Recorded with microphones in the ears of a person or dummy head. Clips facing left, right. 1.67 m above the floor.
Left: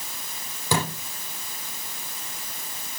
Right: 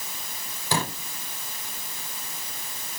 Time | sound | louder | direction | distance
0.7 | a thud | left 2 dB | 80° left | 8.5 m